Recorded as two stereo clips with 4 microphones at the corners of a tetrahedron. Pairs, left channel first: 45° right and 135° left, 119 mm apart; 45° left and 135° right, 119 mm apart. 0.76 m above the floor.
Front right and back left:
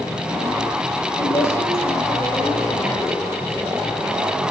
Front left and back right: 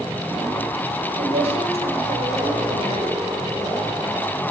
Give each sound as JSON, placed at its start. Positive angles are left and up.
{"t": 1.2, "sound": "a woman speaking", "azimuth_deg": -110, "distance_m": 4.0}